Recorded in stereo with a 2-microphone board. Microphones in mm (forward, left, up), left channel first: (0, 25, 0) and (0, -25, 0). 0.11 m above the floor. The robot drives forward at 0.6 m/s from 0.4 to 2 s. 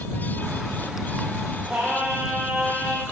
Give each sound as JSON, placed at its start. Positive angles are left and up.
{"t": 1.7, "sound": "singing", "side_deg": -25, "distance_m": 2.5}